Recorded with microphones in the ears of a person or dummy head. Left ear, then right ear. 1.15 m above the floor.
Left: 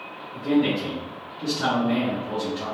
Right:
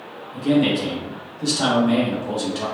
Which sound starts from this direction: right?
A man speaking, at 0.3 s.